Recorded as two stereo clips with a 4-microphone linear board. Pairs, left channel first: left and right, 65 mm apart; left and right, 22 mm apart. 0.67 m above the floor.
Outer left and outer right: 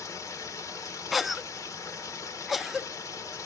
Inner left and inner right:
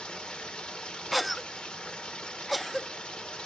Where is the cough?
Centre (ahead or behind), 0.6 m.